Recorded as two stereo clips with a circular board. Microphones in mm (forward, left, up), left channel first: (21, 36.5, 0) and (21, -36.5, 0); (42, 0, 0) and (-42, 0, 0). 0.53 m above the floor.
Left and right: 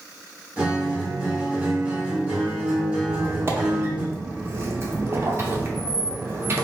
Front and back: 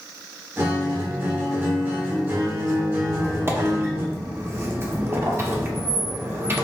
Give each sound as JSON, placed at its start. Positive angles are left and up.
{"t": 0.6, "sound": "a guitar", "azimuth_deg": -150, "distance_m": 1.1}
{"t": 3.0, "sound": "a squeak", "azimuth_deg": -130, "distance_m": 0.5}